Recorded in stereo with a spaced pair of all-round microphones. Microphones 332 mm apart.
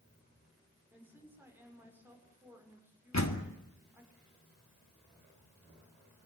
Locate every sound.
0.9 s a woman speaking: 5° right (ahead or behind), 6 m
3.1 s a door slam: 55° left (ahead or behind), 2.0 m